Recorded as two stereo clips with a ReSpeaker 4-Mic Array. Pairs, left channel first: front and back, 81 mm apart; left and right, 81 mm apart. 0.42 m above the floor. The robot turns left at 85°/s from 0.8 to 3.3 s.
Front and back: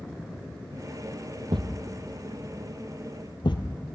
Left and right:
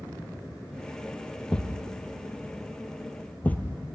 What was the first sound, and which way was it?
A thud, 175° left.